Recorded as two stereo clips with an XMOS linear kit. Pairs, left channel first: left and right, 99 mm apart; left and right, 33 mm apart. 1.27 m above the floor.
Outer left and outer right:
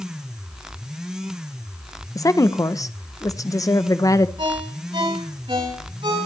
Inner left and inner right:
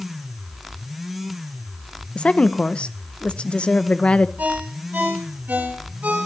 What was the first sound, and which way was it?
A woman speaking, 35° left (ahead or behind).